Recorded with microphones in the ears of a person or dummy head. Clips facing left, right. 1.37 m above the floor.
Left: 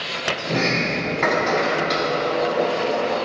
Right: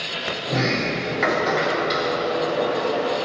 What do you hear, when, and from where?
0.5 s a sliding door: centre (ahead or behind), 1.8 m